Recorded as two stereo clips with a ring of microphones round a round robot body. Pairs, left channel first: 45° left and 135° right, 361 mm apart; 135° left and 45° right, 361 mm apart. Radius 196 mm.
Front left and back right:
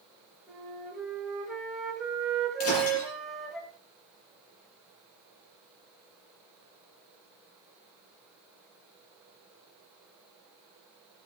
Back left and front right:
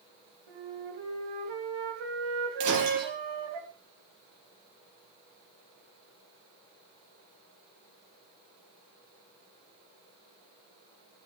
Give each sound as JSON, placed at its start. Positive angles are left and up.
{"t": 0.5, "sound": "a flute", "azimuth_deg": -45, "distance_m": 3.5}
{"t": 2.6, "sound": "breaking glass", "azimuth_deg": -5, "distance_m": 7.0}